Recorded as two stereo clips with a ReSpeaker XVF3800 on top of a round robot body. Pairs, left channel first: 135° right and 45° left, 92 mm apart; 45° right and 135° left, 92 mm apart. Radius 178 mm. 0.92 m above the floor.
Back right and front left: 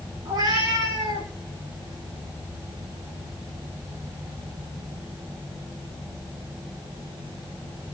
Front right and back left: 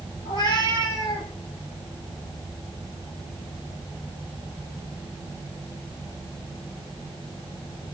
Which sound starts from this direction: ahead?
A cat meowing, at 0.2 s.